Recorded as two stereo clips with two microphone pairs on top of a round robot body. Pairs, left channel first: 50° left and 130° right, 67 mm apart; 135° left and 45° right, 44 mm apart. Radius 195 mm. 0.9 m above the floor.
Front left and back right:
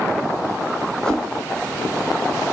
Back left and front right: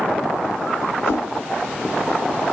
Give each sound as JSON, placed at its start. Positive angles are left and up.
{"t": 1.0, "sound": "a whoosh", "azimuth_deg": 130, "distance_m": 2.5}